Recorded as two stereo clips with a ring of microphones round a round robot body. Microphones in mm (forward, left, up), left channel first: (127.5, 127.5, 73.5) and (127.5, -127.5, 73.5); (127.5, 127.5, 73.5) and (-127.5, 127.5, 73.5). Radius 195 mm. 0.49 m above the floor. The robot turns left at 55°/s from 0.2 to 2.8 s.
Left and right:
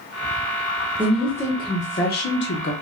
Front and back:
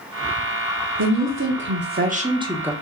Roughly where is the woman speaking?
Behind.